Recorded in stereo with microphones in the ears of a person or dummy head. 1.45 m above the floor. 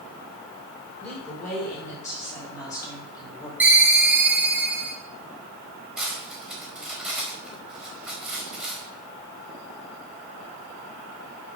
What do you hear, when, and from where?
1.0 s a woman speaking: 15° left (ahead or behind), 6 m; by 3.5 s 25° left (ahead or behind), 5 m
3.6 s a ringtone: 10° right (ahead or behind), 0.8 m
6.0 s cutlery clinking: centre (ahead or behind), 4.5 m